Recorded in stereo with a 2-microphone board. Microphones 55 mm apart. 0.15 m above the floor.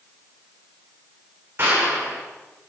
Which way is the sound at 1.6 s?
40° right (ahead or behind).